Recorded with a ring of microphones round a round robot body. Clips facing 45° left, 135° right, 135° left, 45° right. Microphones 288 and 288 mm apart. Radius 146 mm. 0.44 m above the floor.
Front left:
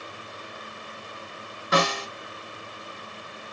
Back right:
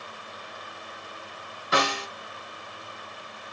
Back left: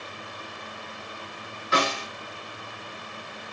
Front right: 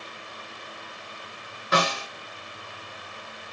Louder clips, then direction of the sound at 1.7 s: Front left 3 dB, front right 1 dB; 5° left.